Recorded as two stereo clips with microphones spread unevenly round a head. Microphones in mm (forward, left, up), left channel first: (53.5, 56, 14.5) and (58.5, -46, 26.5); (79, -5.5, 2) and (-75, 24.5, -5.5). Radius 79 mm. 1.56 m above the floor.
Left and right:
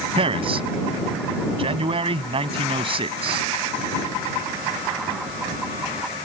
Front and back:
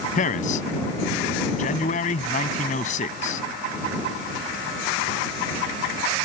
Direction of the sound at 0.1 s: 55° right.